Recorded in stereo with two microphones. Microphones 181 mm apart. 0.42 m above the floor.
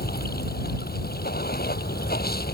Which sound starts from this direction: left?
Running water, at 0.0 s.